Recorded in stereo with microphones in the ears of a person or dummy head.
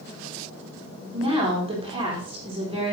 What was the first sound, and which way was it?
A woman speaking, 30° right (ahead or behind).